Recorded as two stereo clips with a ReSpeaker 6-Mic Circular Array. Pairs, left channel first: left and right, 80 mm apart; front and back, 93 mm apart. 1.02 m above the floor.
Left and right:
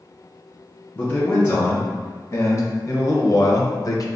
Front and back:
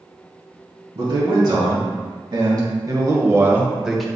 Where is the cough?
I don't hear a cough.